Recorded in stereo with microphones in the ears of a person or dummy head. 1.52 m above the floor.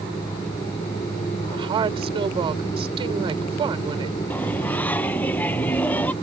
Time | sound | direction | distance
1.5 | a woman speaking | 20° right (ahead or behind) | ?
4.3 | singing | 15° left (ahead or behind) | ?